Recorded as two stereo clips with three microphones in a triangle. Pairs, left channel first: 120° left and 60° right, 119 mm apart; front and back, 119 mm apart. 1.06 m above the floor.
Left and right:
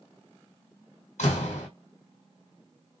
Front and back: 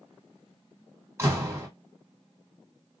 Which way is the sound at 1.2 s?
115° left.